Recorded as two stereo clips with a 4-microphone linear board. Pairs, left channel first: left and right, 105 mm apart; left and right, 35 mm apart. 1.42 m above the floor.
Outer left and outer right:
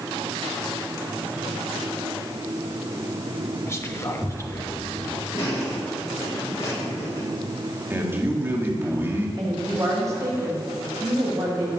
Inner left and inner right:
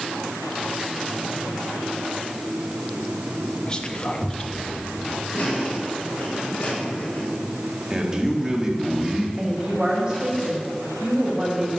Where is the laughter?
35° left (ahead or behind), 5 m.